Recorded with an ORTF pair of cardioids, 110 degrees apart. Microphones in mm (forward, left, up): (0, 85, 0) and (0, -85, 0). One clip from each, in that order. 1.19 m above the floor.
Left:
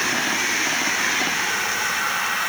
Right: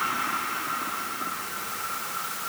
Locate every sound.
Only background noise.